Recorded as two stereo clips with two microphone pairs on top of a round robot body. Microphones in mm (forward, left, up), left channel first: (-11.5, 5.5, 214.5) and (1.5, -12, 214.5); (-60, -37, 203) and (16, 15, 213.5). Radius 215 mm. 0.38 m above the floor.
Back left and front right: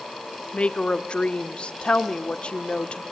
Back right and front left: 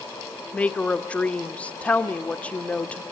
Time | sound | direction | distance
0.5 | a woman speaking | 145° left | 1.5 m